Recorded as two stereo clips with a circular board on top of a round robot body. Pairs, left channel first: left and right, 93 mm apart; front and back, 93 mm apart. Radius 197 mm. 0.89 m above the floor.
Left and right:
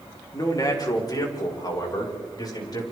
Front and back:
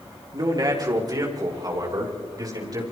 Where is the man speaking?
135° left, 4 m.